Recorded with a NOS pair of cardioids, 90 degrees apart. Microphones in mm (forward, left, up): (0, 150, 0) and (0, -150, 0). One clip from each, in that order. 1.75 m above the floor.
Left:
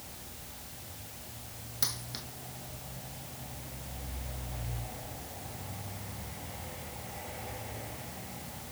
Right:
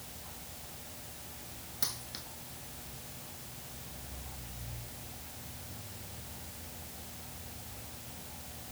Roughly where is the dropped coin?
Ahead.